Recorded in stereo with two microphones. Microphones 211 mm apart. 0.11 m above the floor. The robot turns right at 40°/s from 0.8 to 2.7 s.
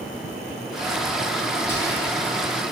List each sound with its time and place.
1.7 s whispering: 10° left (ahead or behind), 1.3 m; by 2.2 s 5° left (ahead or behind), 1.3 m